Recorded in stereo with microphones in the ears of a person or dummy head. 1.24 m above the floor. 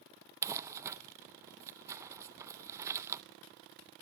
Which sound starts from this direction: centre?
Crumpling, at 0.4 s.